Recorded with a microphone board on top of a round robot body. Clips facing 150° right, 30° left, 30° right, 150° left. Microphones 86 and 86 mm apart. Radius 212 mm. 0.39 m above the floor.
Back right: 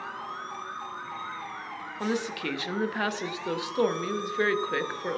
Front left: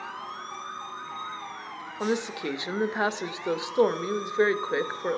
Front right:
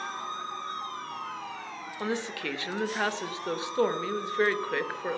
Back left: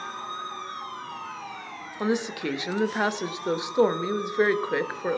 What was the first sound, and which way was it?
A woman speaking, 85° left.